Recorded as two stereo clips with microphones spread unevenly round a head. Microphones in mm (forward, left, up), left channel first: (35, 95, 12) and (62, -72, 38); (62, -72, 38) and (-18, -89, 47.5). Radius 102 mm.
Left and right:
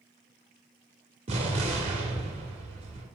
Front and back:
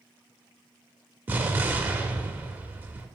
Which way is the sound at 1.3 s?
115° right.